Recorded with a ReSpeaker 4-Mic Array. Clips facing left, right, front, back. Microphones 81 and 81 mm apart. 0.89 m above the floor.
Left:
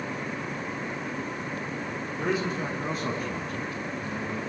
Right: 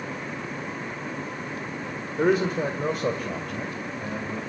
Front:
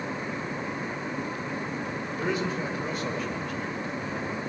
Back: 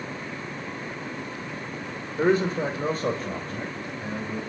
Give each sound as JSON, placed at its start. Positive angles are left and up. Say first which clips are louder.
{"t": 2.2, "sound": "a man speaking", "louder": "right 7 dB, back 8 dB", "azimuth_deg": -130, "distance_m": 2.5}